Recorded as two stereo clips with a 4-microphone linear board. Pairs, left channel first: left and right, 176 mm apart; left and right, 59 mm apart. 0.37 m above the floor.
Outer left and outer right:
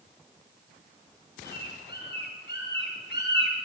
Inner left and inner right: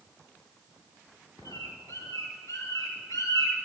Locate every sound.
1.4 s a bird: 75° left (ahead or behind), 4 m